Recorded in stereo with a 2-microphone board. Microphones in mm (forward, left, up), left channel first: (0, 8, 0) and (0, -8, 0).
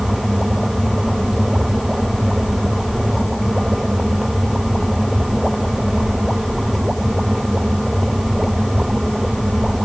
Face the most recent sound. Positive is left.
No sound to turn to.